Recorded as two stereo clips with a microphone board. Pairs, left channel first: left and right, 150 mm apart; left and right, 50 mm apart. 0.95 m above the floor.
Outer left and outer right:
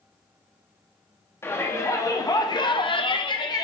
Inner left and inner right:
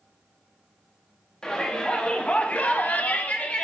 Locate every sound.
1.4 s a shout: 15° left (ahead or behind), 2.5 m; by 3.7 s 25° left (ahead or behind), 1.2 m